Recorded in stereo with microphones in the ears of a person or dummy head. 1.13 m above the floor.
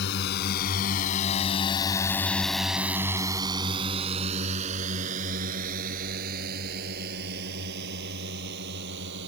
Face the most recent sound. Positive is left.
turn(degrees=-60)  # may be behind; listen again after turning